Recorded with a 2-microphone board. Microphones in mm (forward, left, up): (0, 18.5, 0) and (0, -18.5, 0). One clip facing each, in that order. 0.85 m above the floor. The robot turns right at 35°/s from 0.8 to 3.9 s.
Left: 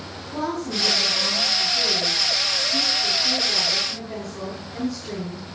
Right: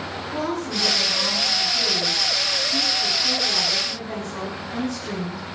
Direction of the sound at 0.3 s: Straight behind.